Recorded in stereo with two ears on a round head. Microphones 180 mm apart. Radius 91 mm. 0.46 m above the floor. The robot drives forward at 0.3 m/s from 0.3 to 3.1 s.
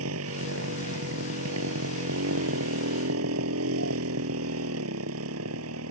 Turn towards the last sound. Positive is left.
turn(degrees=-85)